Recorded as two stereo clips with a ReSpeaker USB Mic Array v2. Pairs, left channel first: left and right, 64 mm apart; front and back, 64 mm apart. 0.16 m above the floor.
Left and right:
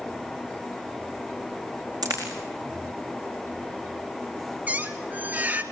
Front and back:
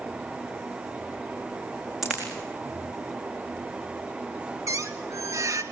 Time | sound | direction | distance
2.0 | a dropped coin | 95° right | 4.5 m
4.7 | a squeak | 155° right | 1.2 m